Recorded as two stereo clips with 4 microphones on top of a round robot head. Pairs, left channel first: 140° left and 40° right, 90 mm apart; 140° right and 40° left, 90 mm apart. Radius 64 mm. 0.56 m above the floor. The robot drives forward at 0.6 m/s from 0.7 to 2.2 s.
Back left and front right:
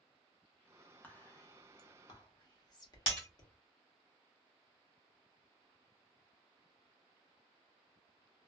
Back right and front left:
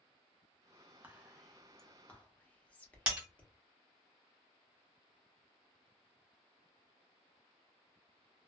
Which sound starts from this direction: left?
Whispering, at 1.0 s.